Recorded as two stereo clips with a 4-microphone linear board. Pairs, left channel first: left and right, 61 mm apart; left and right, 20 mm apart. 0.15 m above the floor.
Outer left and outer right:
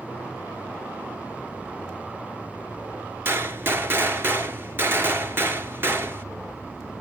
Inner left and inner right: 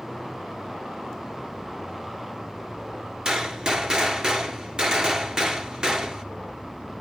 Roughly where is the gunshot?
Right.